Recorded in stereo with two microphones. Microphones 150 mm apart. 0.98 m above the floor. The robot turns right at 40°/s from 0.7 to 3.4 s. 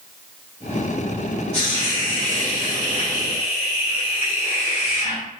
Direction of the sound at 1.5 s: 55° left.